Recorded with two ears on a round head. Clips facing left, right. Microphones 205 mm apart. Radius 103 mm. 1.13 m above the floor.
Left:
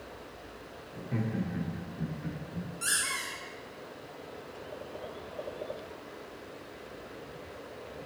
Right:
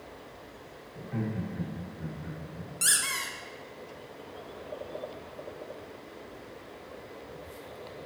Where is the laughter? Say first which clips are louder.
Left 1 dB; 40° left (ahead or behind), 1.6 m; by 2.7 s 30° left (ahead or behind), 1.7 m.